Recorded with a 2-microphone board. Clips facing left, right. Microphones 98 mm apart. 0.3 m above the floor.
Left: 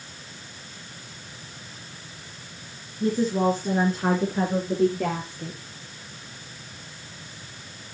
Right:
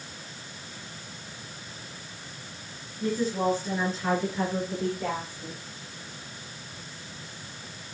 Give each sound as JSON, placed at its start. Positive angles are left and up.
{"t": 3.0, "sound": "a woman speaking", "side_deg": 30, "distance_m": 3.5}